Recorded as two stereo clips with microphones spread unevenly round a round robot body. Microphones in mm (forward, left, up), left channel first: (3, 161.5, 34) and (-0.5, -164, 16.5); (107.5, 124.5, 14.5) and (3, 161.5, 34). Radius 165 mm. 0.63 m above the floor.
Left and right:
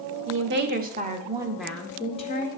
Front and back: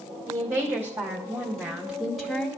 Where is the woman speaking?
125° right, 1.1 m; by 2.5 s 45° left, 0.9 m.